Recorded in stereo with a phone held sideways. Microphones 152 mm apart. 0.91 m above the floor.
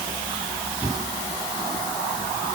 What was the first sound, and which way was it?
Only background noise.